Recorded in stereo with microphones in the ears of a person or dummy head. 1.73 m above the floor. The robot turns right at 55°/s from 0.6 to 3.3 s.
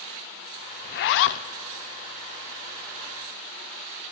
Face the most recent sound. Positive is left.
turn(degrees=-155)